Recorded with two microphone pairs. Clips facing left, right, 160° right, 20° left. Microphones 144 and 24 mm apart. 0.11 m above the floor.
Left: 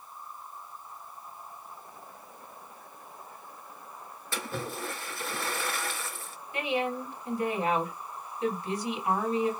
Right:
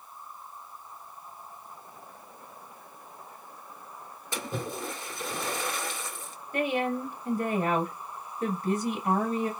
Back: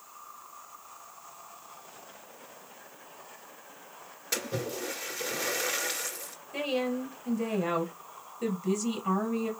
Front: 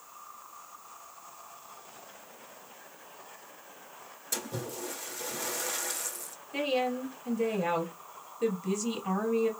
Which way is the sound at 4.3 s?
150° right.